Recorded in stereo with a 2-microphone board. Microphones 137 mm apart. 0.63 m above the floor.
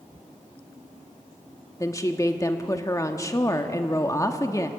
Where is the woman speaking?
25° left (ahead or behind), 1.1 m.